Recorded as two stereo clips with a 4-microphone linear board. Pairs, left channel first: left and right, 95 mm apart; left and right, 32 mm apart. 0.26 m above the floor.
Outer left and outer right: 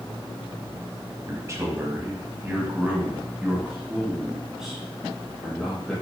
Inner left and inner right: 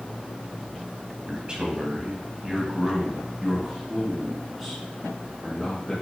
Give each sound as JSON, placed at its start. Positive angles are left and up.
{"t": 1.3, "sound": "a man speaking", "side_deg": -35, "distance_m": 1.5}